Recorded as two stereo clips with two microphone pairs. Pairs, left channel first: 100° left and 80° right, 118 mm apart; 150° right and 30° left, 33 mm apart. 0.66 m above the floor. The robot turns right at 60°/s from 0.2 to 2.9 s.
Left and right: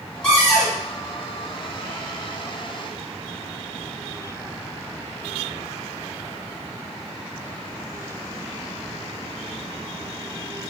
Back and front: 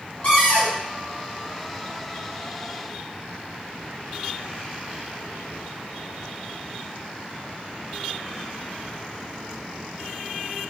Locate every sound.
0.2 s a cupboard door: straight behind, 1.7 m; by 0.8 s 150° right, 1.7 m